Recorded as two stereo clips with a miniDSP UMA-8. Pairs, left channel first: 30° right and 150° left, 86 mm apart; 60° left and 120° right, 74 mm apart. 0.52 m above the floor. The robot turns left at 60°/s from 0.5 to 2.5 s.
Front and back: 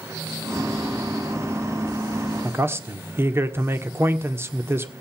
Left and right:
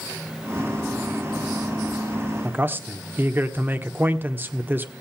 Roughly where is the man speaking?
Behind.